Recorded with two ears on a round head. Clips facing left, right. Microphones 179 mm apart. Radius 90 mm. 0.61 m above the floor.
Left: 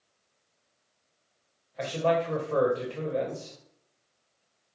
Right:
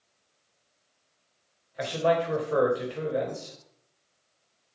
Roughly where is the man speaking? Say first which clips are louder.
Right 1 dB; centre.